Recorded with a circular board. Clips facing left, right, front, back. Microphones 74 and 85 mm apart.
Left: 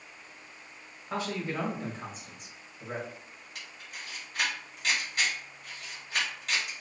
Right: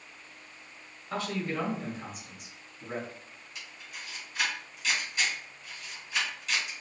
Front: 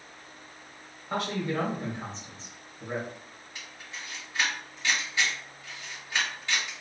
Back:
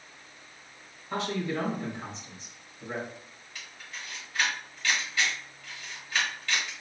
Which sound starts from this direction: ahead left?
A camera shutter, at 3.5 s.